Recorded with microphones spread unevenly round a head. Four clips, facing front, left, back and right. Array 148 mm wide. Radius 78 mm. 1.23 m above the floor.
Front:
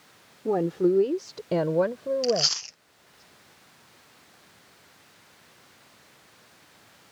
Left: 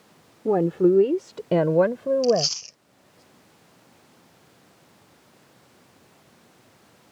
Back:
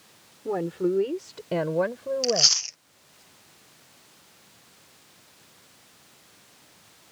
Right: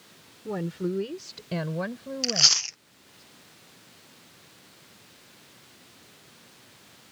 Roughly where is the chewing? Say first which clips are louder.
Left 12 dB, front 1 dB; right.